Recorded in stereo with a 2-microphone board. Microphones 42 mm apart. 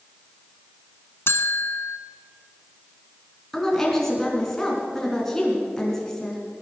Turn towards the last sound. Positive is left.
turn(degrees=10)  # may be behind; listen again after turning